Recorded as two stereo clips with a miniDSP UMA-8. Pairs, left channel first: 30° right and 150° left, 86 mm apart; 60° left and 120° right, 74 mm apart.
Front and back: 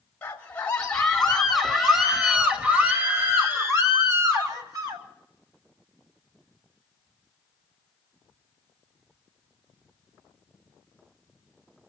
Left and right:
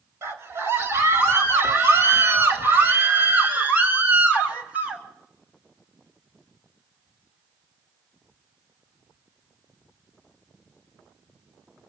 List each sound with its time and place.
0.2 s a scream: 90° right, 2.0 m; by 5.0 s 170° left, 2.5 m